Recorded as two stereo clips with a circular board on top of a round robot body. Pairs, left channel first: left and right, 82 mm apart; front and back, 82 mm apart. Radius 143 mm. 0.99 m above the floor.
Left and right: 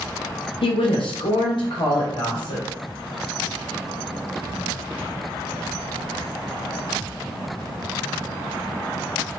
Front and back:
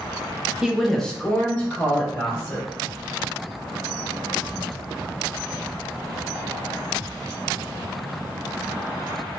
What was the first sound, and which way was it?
A woman speaking, 100° left.